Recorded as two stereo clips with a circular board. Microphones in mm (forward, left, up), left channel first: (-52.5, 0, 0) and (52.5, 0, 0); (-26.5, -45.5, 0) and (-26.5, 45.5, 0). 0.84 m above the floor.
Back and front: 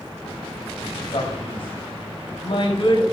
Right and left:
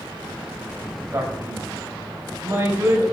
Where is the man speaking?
150° left, 5 m.